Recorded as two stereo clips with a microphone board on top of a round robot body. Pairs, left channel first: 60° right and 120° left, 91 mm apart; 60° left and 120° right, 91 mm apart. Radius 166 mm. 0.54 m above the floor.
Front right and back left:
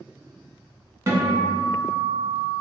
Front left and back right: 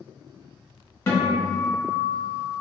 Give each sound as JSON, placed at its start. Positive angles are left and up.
{"t": 1.1, "sound": "a guitar", "azimuth_deg": 100, "distance_m": 1.4}